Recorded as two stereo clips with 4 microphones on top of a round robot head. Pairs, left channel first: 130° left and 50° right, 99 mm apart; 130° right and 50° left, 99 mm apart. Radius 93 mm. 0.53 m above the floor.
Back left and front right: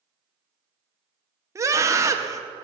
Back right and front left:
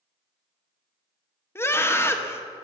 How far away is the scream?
About 1.4 m.